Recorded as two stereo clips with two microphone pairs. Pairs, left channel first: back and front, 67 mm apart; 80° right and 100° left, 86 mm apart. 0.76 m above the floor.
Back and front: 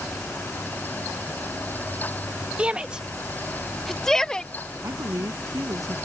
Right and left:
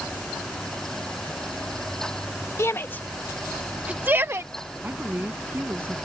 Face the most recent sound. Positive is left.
turn(degrees=35)